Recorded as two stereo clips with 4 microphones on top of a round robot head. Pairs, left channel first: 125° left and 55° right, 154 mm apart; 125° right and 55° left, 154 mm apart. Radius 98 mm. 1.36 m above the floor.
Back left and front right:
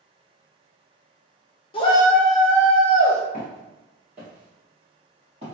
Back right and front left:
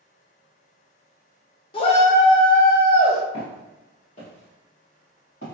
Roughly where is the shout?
Behind.